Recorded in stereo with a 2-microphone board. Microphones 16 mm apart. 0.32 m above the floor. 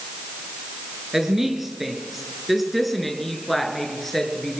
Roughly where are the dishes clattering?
No dishes clattering in this recording.